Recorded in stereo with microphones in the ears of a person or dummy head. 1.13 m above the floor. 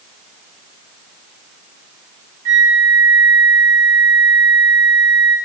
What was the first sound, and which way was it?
A flute, 75° right (ahead or behind).